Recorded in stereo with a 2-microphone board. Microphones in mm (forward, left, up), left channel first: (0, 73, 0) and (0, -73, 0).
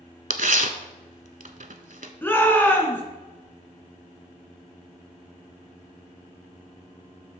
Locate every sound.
0.3 s tearing paper: 70° right (ahead or behind), 0.7 m
2.2 s a shout: 15° left (ahead or behind), 2 m